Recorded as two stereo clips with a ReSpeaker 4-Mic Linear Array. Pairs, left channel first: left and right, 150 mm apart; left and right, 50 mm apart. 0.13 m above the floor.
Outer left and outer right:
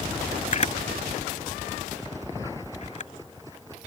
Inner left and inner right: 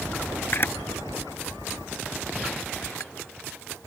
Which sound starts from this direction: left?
A camera shutter, at 0.5 s.